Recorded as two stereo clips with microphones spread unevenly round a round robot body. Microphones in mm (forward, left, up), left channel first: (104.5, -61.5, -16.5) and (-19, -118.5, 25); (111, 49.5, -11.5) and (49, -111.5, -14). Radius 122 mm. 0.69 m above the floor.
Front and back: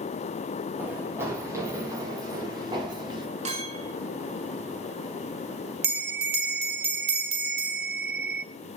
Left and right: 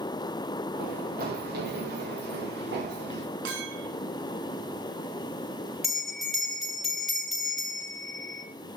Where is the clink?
115° right, 4.5 m.